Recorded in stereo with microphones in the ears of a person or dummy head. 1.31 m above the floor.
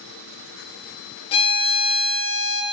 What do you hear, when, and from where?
1.3 s a violin: 30° left (ahead or behind), 0.8 m